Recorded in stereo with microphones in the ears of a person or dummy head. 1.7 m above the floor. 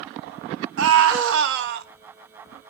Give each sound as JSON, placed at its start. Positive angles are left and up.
{"t": 0.8, "sound": "a scream", "side_deg": -80, "distance_m": 1.8}